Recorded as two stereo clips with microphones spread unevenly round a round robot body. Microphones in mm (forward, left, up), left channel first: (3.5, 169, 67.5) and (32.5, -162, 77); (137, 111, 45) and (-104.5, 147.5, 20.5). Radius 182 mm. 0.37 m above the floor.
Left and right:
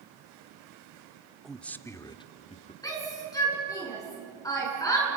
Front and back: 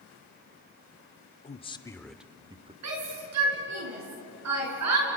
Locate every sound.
1.4 s a man speaking: 10° left, 0.9 m; by 2.7 s 140° left, 0.9 m
2.8 s a shout: 175° left, 5.5 m